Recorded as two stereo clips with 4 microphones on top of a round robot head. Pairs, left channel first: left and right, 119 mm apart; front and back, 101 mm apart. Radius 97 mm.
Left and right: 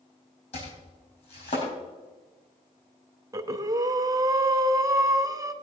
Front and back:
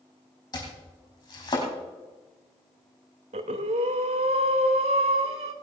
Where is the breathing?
150° right, 1.0 m.